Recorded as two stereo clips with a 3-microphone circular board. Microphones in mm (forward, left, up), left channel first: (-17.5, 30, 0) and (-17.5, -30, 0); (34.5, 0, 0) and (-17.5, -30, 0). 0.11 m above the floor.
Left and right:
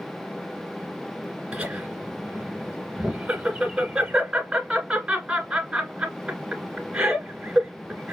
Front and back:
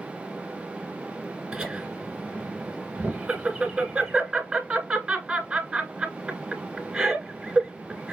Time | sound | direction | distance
1.5 | laughter | 135° right | 1.6 m